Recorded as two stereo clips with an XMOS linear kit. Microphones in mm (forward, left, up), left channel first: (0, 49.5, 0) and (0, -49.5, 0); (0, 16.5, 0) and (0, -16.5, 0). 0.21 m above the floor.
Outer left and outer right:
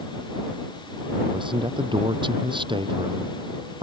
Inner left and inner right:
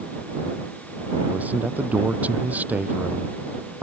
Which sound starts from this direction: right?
A man speaking, at 1.3 s.